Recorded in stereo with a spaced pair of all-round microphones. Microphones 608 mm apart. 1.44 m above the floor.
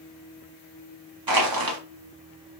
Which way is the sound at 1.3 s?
35° right (ahead or behind).